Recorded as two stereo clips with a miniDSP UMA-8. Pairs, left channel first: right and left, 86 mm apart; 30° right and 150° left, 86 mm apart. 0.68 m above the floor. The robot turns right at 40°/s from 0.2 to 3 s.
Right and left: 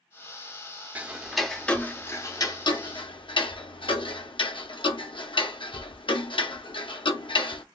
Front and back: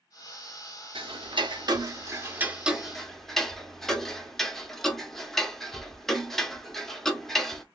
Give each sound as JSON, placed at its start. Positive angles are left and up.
{"t": 0.9, "sound": "ticking", "azimuth_deg": 160, "distance_m": 0.6}